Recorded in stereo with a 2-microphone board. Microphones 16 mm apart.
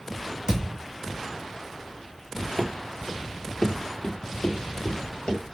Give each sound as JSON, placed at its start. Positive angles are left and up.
{"t": 0.5, "sound": "a thud", "side_deg": -45, "distance_m": 2.5}
{"t": 2.6, "sound": "running footsteps", "side_deg": 0, "distance_m": 0.7}